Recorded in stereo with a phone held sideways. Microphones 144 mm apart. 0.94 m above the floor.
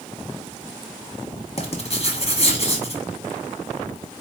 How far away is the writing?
About 1.2 m.